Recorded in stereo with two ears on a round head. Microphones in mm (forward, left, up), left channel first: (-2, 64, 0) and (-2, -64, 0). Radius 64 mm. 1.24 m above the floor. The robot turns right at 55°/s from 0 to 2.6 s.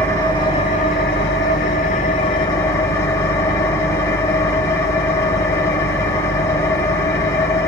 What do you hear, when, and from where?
0.0 s an engine running: 15° left, 3 m; by 7.7 s 160° left, 3 m